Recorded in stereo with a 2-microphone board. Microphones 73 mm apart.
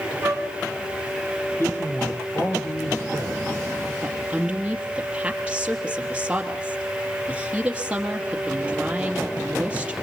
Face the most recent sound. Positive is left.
turn(degrees=-15)  # may be behind; listen again after turning